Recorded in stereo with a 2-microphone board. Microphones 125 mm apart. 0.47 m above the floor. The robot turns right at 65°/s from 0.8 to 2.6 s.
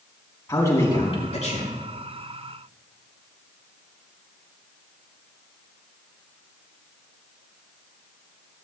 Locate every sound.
0.5 s a man speaking: 25° left, 4 m; by 1.7 s 85° left, 4 m